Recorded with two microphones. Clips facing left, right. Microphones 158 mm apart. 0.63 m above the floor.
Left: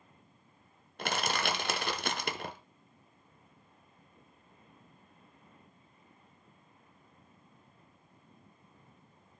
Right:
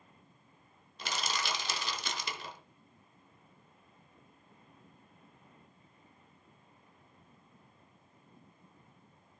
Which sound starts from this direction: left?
Crushing, at 1.0 s.